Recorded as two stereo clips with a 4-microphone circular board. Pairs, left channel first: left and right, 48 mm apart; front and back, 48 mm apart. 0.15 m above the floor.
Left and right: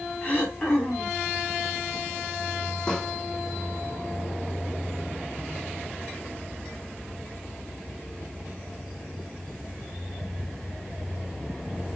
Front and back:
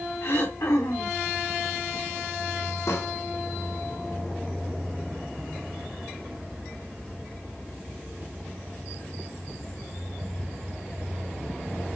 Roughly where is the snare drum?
Ahead.